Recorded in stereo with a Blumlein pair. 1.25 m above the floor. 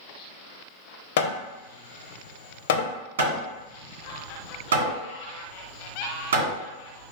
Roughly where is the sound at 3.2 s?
Ahead right.